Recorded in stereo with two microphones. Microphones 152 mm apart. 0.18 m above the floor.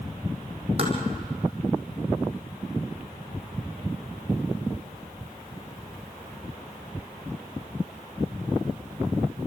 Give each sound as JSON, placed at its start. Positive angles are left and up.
{"t": 0.8, "sound": "tapping", "side_deg": -40, "distance_m": 4.5}